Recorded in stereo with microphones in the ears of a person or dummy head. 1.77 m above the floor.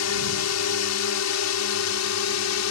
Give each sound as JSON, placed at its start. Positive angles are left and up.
{"t": 0.0, "sound": "a drone", "side_deg": 75}